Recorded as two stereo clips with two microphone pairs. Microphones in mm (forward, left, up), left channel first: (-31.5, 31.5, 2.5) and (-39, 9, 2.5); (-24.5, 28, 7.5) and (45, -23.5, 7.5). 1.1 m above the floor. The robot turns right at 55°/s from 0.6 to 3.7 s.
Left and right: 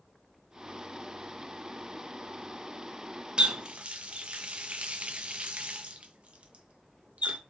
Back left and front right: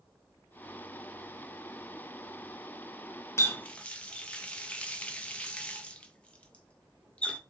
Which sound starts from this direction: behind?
A running tap, at 3.4 s.